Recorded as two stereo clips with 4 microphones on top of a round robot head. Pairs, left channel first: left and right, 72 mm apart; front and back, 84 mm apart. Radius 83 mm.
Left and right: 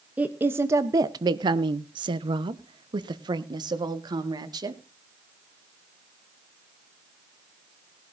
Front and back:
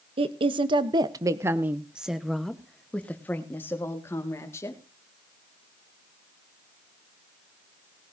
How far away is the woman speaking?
About 0.8 m.